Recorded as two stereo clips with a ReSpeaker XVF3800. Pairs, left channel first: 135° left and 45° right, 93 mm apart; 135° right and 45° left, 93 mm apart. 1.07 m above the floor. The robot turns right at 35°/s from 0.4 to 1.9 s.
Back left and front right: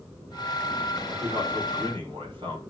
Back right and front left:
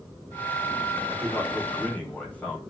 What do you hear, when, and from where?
1.1 s a man speaking: 90° right, 3 m; by 2.6 s 60° right, 3 m